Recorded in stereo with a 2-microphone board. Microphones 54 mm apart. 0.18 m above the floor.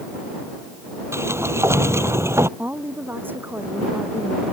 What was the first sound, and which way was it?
A sliding door, 55° right (ahead or behind).